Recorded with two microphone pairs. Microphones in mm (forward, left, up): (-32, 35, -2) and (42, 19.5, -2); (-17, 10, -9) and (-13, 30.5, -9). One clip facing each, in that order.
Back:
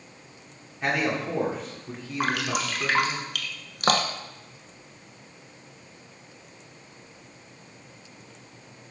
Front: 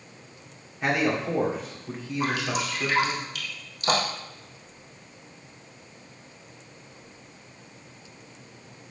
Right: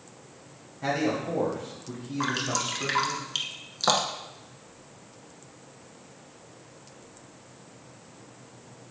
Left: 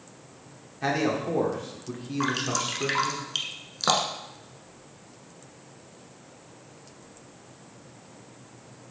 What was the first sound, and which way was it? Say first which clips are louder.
A man speaking: front 1 dB, left 1 dB; 75° left.